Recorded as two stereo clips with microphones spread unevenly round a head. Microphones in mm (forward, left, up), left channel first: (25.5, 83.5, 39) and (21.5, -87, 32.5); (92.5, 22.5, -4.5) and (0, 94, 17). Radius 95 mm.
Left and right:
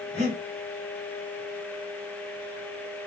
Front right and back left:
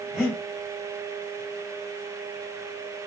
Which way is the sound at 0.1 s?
120° right.